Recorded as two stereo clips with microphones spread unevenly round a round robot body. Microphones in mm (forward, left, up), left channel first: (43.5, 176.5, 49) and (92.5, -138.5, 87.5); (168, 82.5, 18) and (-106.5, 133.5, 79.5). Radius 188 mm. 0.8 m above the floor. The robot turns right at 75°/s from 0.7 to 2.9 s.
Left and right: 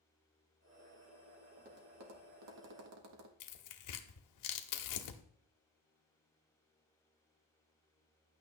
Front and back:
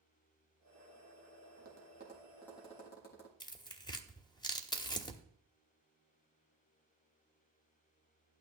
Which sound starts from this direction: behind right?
Tapping, at 1.6 s.